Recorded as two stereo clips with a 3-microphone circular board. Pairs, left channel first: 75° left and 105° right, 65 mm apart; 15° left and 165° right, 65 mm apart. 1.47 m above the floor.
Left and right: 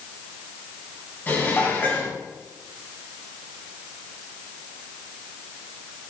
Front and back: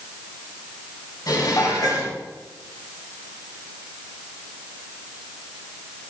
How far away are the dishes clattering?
About 5.5 m.